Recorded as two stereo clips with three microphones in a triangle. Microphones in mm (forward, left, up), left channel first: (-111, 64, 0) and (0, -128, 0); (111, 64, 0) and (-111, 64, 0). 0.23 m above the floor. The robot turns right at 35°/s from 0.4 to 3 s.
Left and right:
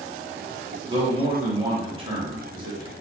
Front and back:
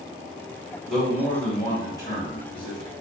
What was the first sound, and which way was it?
A man speaking, 90° right.